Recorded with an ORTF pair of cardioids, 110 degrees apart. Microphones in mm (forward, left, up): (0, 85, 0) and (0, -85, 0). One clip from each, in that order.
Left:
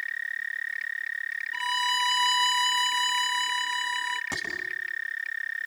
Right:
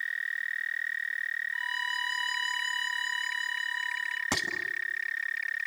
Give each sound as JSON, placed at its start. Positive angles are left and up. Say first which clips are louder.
{"t": 1.5, "sound": "a violin", "louder": "left 5 dB", "azimuth_deg": 60, "distance_m": 1.2}
{"t": 4.3, "sound": "dishes clattering", "louder": "right 2 dB", "azimuth_deg": -40, "distance_m": 6.5}